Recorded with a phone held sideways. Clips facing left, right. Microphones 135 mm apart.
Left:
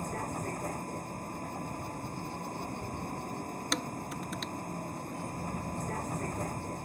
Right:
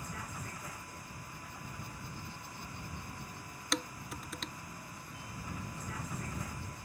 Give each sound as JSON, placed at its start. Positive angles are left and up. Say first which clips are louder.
{"t": 0.0, "sound": "a vehicle", "louder": "left 9 dB", "side_deg": 45}
{"t": 3.7, "sound": "dishes clattering", "louder": "even", "side_deg": 0}